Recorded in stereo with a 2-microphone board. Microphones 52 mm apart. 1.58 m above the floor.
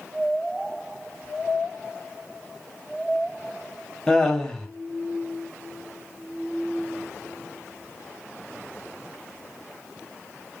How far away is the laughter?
About 1.1 m.